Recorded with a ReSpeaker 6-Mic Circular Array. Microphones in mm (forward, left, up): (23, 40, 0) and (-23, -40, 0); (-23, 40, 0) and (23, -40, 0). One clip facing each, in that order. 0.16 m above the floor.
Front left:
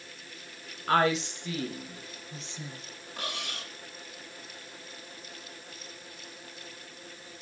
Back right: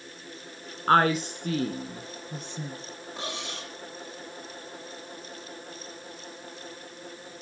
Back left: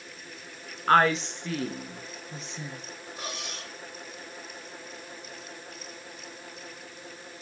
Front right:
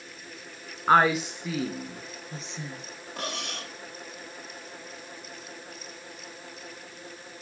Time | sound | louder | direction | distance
0.9 | a woman speaking | back right 4 dB, front right 1 dB | 135° right | 1.9 m
3.2 | cutlery clinking | back right 1 dB, front right 5 dB | 50° right | 3 m